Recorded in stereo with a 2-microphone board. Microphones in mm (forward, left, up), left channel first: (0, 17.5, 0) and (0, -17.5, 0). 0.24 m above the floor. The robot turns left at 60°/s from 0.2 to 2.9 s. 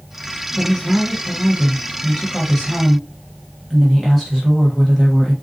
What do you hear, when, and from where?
0.6 s a woman speaking: 10° left (ahead or behind), 1.0 m; by 5.3 s 5° left (ahead or behind), 1.0 m